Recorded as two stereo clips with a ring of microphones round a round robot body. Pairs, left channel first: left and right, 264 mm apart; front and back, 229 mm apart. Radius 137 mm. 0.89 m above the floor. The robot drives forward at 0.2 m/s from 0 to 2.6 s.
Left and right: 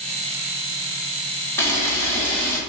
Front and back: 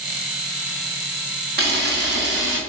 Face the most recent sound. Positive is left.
turn(degrees=170)